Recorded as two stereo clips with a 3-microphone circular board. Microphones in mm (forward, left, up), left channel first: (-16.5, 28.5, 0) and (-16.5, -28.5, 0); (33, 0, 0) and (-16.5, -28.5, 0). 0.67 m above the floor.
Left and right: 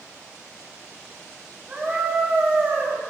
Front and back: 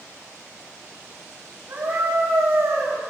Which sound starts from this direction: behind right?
A scream, at 1.7 s.